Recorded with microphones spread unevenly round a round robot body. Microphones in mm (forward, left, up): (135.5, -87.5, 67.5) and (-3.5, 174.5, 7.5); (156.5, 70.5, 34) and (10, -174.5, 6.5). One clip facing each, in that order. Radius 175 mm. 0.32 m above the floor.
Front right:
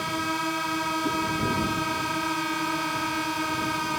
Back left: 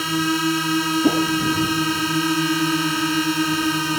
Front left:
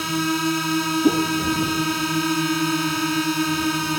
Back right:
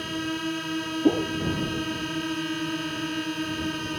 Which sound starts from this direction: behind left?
A whoosh, at 1.0 s.